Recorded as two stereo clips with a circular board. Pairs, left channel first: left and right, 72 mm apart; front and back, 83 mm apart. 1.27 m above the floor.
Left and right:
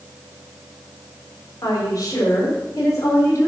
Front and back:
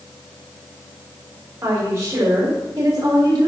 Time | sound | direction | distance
1.6 | a woman speaking | 125° left | 3.5 m